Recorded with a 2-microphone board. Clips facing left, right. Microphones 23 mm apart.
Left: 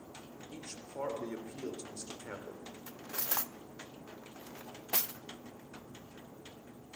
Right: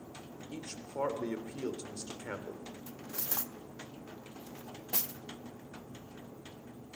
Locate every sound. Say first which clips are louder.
0.5 s a man speaking: right 4 dB; 20° right (ahead or behind), 2.5 m
2.9 s cutlery clinking: left 3 dB; 30° left (ahead or behind), 0.6 m